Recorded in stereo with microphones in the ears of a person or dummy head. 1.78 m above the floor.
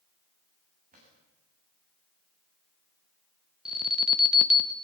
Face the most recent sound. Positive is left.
turn(degrees=-10)  # may be behind; listen again after turning